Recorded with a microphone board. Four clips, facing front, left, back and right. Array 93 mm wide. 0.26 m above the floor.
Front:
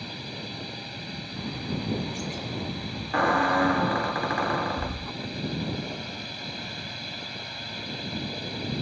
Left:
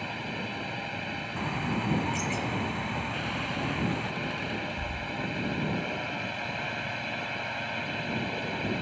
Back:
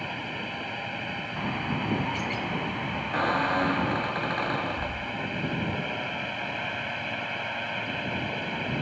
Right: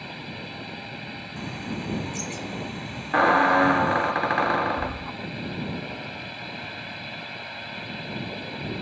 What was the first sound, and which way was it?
A drone, 155° left.